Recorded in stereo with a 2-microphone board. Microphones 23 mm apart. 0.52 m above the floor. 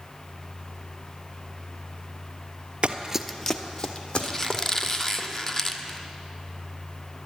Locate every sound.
2.8 s running footsteps: 55° right (ahead or behind), 0.7 m; by 5.2 s 60° left (ahead or behind), 3.5 m
4.2 s a squeak: 20° left (ahead or behind), 0.8 m